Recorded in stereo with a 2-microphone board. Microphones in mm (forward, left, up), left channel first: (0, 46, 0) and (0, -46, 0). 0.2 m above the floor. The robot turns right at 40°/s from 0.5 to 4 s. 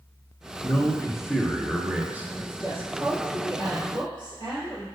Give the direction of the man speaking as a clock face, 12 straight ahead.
6 o'clock.